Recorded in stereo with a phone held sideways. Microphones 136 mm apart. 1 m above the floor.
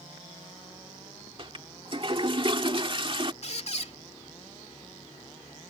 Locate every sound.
1.4 s a toilet flushing: 40° right (ahead or behind)
3.4 s a squeak: 50° left (ahead or behind)